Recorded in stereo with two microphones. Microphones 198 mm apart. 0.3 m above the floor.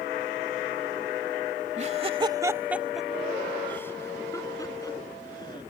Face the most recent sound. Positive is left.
turn(degrees=20)  # may be behind; listen again after turning